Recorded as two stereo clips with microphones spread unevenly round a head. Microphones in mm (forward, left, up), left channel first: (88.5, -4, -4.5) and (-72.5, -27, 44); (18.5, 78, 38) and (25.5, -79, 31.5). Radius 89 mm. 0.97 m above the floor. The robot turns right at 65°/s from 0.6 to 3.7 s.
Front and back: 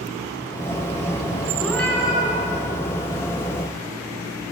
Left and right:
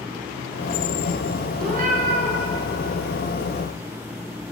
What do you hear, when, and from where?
1.6 s a cat meowing: 105° right, 1.1 m; by 2.4 s 55° right, 1.1 m